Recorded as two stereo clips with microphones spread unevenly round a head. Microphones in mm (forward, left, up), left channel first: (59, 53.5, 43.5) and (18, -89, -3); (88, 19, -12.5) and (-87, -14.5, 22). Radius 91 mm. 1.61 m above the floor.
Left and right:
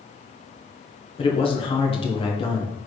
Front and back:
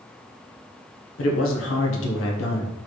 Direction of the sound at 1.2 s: 30° left.